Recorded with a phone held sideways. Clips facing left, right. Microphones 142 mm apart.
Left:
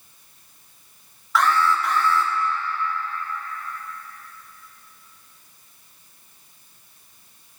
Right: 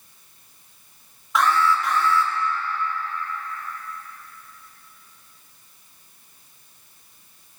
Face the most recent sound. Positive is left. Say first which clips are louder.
# even
turn(degrees=-20)  # may be behind; listen again after turning